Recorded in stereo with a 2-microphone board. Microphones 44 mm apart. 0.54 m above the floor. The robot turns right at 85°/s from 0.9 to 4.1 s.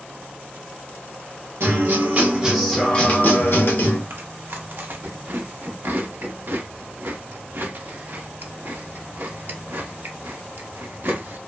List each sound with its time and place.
1.6 s a guitar: 85° right, 0.8 m; by 4.0 s 120° left, 0.8 m
4.1 s chewing: 55° right (ahead or behind), 0.6 m